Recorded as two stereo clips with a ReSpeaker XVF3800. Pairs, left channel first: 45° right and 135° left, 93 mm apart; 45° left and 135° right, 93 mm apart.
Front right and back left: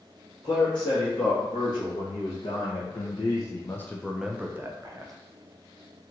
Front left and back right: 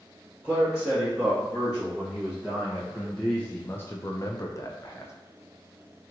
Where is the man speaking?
60° right, 2 m; by 5.1 s 95° left, 0.8 m.